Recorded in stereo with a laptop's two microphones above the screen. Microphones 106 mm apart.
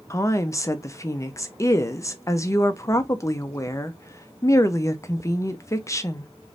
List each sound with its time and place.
0.1 s a woman speaking: 30° left (ahead or behind), 0.6 m